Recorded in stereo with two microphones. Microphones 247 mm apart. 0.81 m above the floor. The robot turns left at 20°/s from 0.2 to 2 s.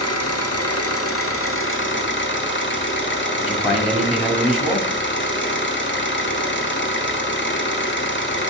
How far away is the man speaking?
About 1.5 m.